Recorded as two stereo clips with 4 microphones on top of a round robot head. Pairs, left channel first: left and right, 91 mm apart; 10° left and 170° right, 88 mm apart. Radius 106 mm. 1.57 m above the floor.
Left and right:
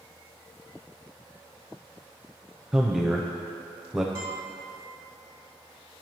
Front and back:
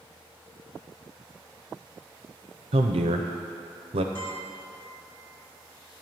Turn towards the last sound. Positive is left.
turn(degrees=-35)